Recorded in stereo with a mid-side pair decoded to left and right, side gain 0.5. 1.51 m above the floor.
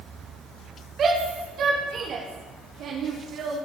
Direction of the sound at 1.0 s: 55° right.